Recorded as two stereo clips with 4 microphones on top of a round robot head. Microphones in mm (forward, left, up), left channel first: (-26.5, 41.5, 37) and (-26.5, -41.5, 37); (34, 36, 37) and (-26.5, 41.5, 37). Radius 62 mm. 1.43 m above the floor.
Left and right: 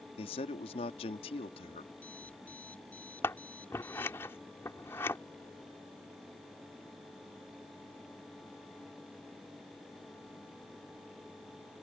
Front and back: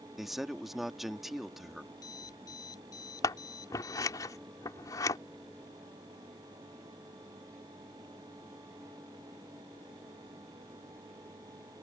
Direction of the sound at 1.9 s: 15° left.